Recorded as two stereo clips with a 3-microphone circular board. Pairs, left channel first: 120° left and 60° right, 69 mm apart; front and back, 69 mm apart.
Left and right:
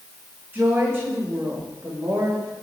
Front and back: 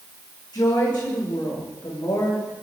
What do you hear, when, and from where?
0.5 s a woman speaking: straight ahead, 9 m; by 2.5 s 10° right, 8.5 m